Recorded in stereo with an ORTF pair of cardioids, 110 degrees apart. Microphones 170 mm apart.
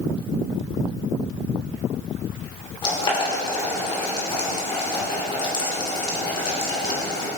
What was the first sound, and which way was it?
Boiling, 30° left.